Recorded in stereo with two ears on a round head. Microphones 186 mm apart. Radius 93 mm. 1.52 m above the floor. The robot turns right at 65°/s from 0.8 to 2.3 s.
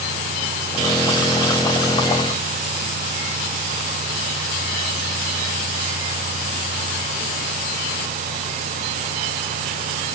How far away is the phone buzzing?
No phone buzzing in this recording.